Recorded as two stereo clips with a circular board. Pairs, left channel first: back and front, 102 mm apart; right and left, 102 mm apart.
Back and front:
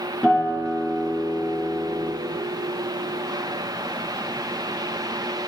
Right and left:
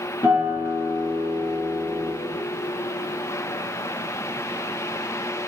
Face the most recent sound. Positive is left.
turn(degrees=-95)